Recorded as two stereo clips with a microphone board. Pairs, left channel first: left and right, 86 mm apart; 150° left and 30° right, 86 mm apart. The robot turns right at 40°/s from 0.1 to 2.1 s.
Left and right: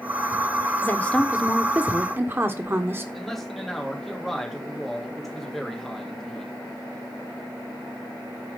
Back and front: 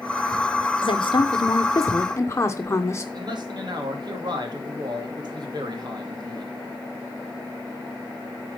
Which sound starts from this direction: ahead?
A man speaking, at 3.1 s.